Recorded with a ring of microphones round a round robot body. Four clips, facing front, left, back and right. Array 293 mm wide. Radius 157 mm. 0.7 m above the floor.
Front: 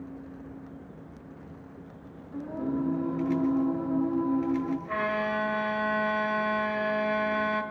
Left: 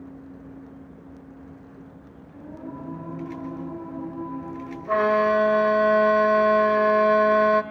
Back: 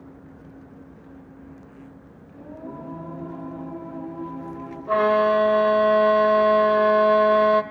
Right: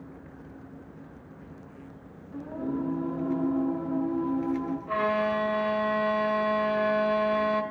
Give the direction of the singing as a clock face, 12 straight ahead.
1 o'clock.